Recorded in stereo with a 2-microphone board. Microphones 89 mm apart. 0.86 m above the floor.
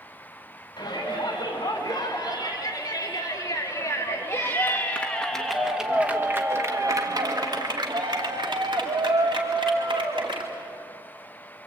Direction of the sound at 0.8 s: 55° left (ahead or behind).